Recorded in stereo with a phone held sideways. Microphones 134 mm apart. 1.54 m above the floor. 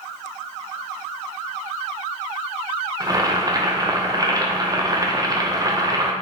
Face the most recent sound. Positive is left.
turn(degrees=-30)  # may be behind; listen again after turning